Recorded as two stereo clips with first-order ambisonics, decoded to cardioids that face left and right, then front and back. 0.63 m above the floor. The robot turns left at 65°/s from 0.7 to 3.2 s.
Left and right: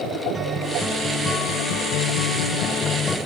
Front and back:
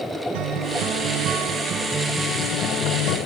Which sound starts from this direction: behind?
A guitar, at 0.3 s.